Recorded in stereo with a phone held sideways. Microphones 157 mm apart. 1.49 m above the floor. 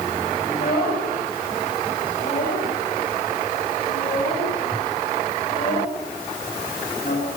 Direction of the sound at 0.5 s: 80° left.